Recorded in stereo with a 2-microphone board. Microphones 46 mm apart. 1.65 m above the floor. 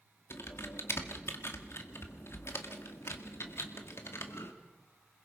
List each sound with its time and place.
0.3 s typing on a keyboard: 65° left (ahead or behind), 2.0 m